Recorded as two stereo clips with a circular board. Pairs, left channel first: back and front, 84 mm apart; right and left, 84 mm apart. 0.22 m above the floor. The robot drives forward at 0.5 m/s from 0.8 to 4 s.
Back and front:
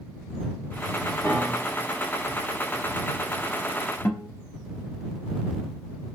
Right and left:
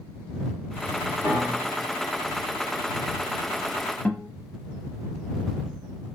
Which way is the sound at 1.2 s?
160° left.